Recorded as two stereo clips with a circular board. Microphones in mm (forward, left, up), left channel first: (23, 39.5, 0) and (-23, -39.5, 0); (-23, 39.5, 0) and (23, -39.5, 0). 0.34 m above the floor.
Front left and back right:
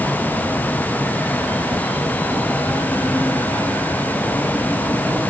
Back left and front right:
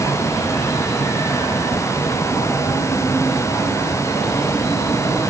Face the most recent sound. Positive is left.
No sound to turn to.